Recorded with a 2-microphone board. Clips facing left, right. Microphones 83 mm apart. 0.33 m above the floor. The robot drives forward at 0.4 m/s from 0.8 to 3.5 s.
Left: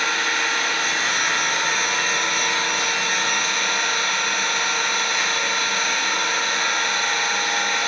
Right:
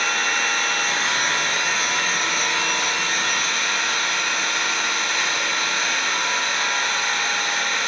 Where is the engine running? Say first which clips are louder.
Even; 5° left (ahead or behind), 1.1 m; by 7.9 s centre (ahead or behind), 2 m.